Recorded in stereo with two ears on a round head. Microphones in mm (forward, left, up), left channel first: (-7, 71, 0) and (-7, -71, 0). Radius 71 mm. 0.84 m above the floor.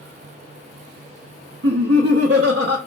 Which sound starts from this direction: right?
Laughter, at 1.6 s.